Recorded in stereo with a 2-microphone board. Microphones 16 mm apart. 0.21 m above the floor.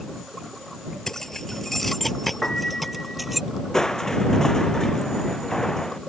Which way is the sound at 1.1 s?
30° left (ahead or behind).